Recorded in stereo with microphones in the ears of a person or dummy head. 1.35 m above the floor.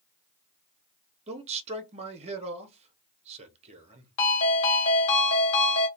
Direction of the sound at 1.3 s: 35° right (ahead or behind).